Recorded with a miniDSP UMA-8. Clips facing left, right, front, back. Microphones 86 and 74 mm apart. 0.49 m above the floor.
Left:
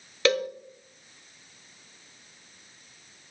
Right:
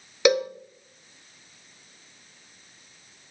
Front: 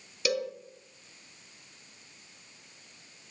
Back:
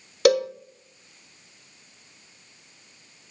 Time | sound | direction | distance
0.2 | a cowbell | 160° right | 1.1 m